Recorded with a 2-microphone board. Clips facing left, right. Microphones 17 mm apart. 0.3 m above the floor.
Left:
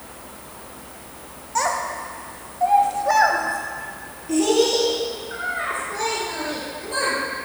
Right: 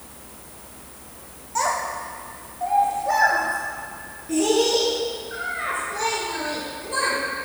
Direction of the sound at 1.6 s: 10° left (ahead or behind).